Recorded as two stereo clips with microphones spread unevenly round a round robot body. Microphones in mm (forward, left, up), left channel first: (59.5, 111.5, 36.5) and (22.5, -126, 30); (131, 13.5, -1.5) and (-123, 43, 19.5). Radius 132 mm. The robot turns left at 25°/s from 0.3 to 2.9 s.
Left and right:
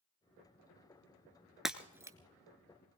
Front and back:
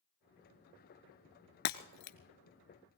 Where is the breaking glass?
10° right, 1.0 m; by 2.2 s 25° right, 1.0 m.